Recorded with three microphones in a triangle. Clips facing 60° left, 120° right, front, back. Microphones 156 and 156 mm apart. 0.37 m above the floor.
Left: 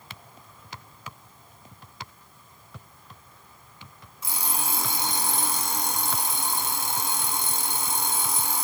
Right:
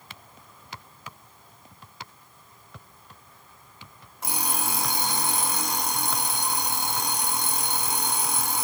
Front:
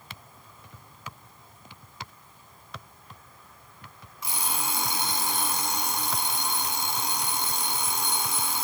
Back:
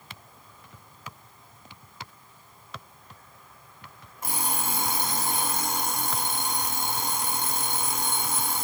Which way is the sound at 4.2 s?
145° right.